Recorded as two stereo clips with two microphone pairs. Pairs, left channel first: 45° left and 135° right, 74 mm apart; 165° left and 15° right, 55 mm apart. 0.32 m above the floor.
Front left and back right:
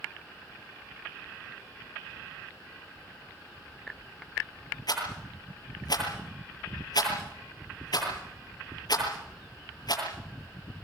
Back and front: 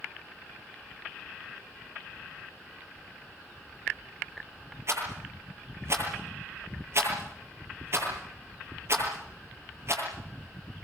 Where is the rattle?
20° left, 9 m.